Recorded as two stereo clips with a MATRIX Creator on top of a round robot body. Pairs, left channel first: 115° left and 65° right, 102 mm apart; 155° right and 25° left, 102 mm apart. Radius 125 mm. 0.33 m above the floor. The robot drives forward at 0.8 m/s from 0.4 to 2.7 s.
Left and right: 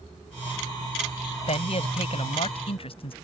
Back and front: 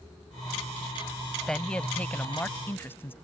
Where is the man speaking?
120° left; by 3.1 s 135° left.